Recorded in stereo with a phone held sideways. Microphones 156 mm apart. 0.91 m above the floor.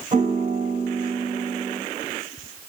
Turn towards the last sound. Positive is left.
turn(degrees=-40)  # may be behind; listen again after turning